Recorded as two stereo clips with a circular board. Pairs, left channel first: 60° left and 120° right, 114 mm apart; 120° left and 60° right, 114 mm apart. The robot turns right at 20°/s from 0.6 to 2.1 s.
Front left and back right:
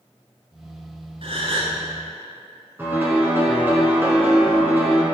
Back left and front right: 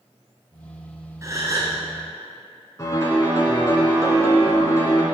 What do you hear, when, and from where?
1.2 s a gasp: 115° right, 1.3 m; by 1.8 s 105° right, 1.3 m
2.8 s a piano: 175° left, 1.5 m